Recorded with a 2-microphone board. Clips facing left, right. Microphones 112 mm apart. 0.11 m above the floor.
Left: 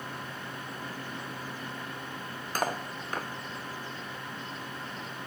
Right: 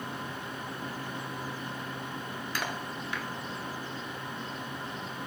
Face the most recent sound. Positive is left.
turn(degrees=40)  # may be behind; listen again after turning